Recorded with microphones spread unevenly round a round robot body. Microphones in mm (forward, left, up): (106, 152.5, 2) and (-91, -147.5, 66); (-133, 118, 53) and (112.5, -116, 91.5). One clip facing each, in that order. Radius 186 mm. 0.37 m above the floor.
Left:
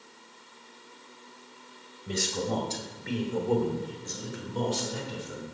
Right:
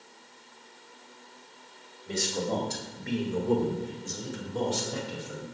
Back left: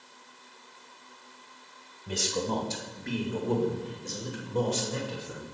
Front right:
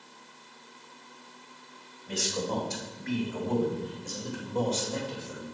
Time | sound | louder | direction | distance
2.1 | a man speaking | even, back left 1 dB | 120° left | 2 m